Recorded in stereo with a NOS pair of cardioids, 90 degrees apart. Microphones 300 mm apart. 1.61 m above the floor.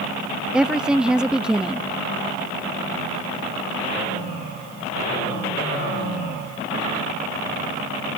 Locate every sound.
0.5 s a woman speaking: 5° right